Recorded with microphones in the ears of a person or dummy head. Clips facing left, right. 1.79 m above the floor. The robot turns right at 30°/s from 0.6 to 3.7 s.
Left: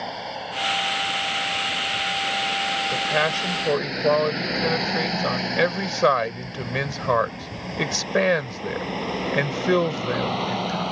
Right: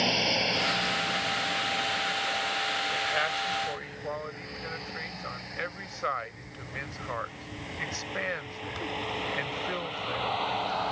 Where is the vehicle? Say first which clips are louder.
Right 3 dB; 40° right (ahead or behind); by 10.9 s 45° left (ahead or behind).